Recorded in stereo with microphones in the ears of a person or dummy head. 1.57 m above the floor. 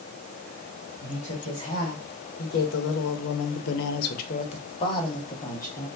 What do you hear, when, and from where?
1.0 s a woman speaking: 35° left (ahead or behind), 1.7 m; by 5.9 s 10° left (ahead or behind), 1.4 m